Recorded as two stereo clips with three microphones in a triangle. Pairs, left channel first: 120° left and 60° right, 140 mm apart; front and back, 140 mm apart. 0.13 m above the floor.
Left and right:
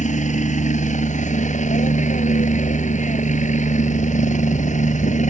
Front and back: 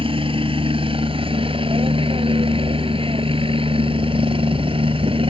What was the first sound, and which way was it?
A helicopter, 135° left.